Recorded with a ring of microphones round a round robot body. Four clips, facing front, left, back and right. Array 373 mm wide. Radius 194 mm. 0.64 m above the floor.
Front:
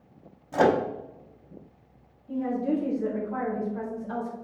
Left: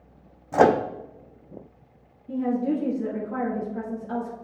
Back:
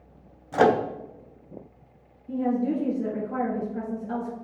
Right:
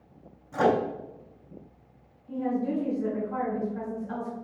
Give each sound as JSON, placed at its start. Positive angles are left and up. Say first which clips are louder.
{"t": 0.5, "sound": "a microwave", "louder": "left 5 dB, back 2 dB", "azimuth_deg": 105, "distance_m": 0.6}
{"t": 2.3, "sound": "a woman speaking", "louder": "left 4 dB, back 2 dB", "azimuth_deg": 145, "distance_m": 2.0}